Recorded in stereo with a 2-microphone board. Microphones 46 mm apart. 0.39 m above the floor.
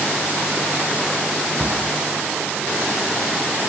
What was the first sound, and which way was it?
A cupboard door, 5° left (ahead or behind).